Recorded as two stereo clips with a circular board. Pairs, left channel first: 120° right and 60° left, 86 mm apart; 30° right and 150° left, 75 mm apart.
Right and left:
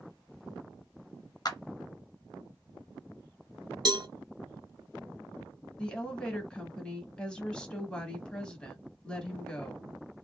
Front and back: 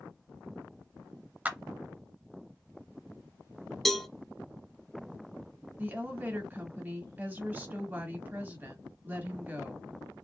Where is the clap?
145° right, 1.4 m.